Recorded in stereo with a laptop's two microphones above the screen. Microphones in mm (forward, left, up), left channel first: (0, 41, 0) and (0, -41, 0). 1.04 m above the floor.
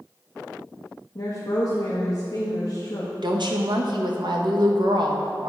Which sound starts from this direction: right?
A woman speaking, at 3.2 s.